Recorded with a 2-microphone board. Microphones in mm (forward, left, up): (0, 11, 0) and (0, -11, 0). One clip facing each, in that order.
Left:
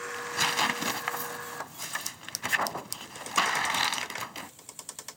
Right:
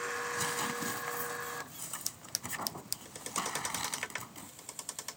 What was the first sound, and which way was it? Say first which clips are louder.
Tearing paper: left 7 dB; 75° left (ahead or behind).